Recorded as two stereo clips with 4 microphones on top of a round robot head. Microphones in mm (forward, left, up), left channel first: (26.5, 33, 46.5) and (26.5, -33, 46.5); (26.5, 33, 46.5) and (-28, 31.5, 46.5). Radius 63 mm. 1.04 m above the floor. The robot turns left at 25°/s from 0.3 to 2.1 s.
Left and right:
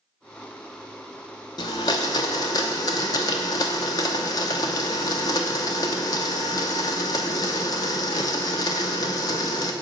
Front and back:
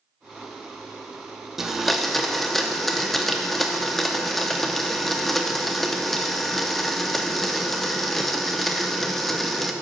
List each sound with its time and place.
1.6 s a blender: 100° left, 0.6 m; by 9.7 s 85° left, 0.6 m